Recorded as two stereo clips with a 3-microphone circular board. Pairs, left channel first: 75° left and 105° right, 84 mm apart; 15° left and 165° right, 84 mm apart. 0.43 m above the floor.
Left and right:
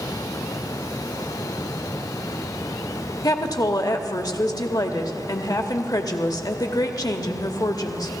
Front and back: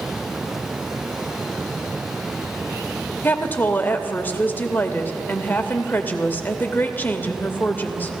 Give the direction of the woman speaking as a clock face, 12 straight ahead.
10 o'clock.